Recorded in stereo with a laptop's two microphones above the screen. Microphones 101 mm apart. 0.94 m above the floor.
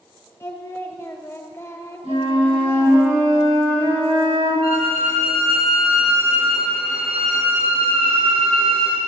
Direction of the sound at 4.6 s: 80° right.